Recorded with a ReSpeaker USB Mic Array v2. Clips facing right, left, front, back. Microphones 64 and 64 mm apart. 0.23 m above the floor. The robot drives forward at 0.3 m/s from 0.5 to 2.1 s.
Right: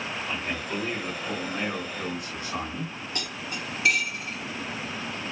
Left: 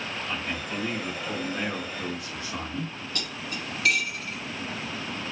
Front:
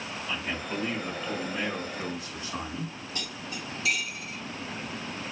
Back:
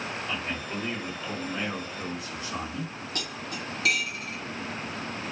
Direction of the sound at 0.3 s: 105° right.